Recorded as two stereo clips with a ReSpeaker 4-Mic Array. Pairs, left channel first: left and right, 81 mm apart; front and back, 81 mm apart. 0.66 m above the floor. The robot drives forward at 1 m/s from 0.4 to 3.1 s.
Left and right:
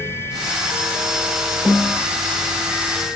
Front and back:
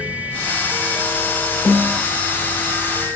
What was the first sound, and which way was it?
A snare drum, 20° left.